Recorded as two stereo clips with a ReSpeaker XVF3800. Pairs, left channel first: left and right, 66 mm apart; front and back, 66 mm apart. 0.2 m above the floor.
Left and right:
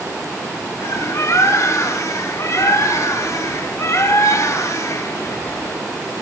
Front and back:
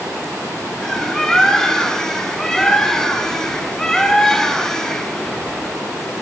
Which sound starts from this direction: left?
A bird, at 0.8 s.